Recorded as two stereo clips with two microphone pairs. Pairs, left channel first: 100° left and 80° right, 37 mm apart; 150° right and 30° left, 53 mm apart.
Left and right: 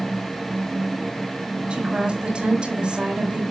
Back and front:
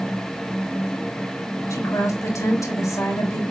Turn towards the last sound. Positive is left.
turn(degrees=-145)